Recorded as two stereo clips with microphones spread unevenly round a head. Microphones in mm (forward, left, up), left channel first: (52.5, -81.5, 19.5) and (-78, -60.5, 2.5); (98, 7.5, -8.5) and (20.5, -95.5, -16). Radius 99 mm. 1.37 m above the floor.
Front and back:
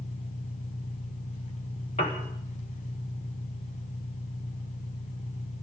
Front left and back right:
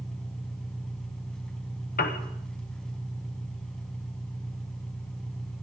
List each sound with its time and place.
0.0 s an engine running: 30° right, 3.5 m
2.0 s a piano: 55° left, 1.5 m